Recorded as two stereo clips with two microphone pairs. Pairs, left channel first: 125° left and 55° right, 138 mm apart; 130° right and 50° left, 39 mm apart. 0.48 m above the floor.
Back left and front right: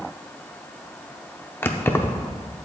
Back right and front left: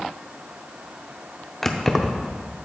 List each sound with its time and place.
1.6 s keys jangling: 165° left, 0.6 m